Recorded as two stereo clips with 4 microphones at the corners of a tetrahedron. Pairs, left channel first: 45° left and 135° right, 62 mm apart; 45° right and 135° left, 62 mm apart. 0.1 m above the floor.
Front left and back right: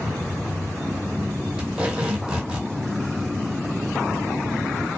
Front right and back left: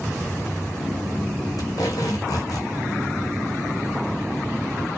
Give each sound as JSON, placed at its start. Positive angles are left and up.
{"t": 1.6, "sound": "tape being pulled", "azimuth_deg": -60, "distance_m": 1.2}